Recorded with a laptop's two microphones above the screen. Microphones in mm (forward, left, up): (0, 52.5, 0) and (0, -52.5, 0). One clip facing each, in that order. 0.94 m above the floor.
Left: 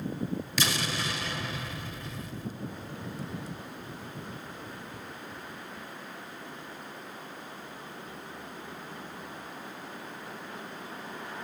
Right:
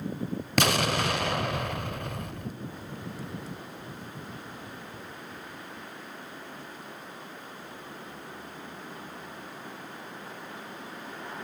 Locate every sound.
0.6 s an explosion: 55° right (ahead or behind), 0.9 m